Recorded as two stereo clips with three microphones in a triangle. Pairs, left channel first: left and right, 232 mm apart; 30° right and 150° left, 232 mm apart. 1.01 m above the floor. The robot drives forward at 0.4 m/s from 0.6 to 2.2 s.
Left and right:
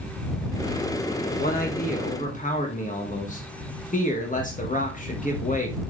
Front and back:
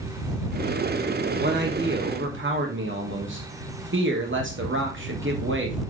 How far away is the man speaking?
About 1.4 m.